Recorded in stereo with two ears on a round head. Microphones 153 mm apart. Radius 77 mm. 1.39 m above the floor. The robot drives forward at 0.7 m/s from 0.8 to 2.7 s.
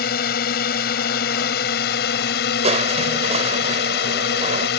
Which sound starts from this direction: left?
A drone, at 0.0 s.